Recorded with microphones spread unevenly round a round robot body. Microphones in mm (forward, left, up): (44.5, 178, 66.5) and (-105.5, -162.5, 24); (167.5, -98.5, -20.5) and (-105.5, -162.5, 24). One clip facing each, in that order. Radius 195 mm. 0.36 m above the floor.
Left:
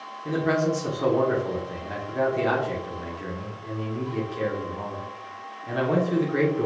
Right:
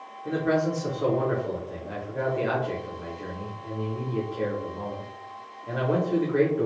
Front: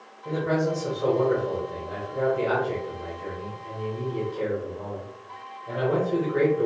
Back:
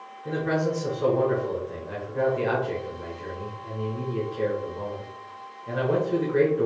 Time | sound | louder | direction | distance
0.2 | a man speaking | left 1 dB, front 1 dB | 140° left | 1.1 m